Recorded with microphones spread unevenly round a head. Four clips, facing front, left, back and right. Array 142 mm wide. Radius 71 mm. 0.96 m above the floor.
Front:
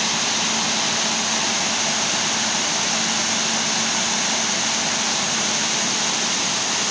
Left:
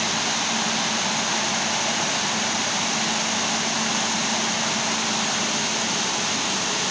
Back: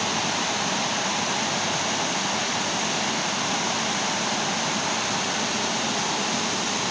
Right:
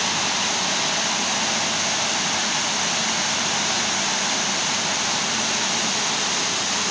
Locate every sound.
Only background noise.